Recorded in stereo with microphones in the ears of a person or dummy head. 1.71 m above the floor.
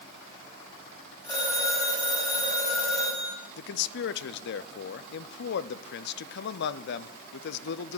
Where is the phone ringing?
15° left (ahead or behind), 6.5 m.